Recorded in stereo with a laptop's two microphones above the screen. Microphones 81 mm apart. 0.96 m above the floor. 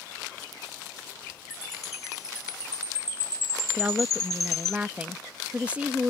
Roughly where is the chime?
Left.